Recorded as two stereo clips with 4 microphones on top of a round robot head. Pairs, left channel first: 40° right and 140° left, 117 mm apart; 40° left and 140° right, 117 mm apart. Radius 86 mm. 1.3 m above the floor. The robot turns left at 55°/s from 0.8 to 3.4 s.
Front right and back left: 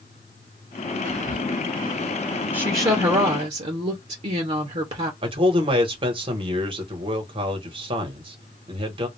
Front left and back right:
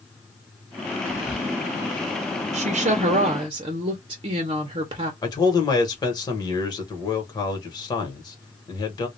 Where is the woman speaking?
140° right, 0.8 m; by 5.1 s 175° left, 0.8 m.